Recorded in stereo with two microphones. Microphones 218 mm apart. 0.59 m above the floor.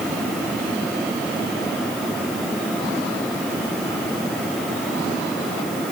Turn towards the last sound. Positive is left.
No sound to turn to.